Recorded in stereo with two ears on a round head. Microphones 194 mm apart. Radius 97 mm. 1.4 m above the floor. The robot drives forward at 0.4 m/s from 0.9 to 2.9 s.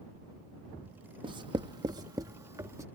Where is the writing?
20° right (ahead or behind); by 2.9 s 15° right (ahead or behind).